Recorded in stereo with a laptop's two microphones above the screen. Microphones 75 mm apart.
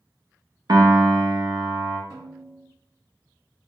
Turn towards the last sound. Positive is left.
turn(degrees=-40)  # may be behind; listen again after turning